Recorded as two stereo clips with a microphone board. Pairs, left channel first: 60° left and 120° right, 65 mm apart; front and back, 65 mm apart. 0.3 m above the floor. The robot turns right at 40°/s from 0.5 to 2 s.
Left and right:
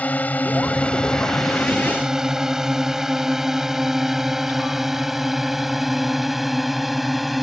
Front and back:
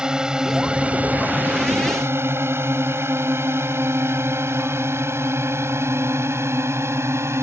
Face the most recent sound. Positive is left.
turn(degrees=150)